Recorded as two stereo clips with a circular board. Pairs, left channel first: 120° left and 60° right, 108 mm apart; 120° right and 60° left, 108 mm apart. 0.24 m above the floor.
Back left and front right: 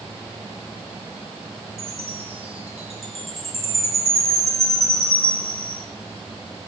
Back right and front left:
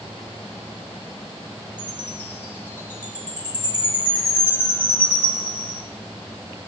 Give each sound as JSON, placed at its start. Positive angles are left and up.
{"t": 1.8, "sound": "a chime", "azimuth_deg": -50, "distance_m": 4.5}